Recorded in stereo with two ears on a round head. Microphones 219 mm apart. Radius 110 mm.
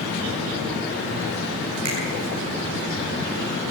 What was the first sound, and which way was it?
A finger snap, 80° right.